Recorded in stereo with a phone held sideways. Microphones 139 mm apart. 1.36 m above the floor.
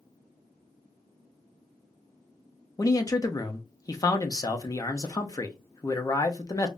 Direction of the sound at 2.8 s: 25° left (ahead or behind).